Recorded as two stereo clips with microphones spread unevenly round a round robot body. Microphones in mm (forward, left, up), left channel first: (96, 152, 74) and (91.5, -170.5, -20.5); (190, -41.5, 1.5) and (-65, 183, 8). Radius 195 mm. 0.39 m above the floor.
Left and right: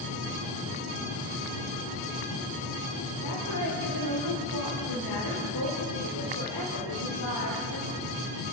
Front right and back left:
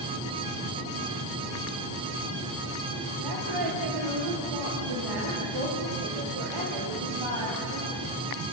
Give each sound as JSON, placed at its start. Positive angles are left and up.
{"t": 3.2, "sound": "a woman speaking", "azimuth_deg": 135, "distance_m": 8.0}